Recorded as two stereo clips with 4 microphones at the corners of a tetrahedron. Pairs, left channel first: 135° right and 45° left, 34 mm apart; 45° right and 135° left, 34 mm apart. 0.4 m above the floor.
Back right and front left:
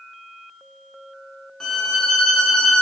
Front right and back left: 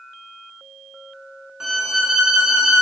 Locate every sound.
1.6 s a violin: straight behind, 0.7 m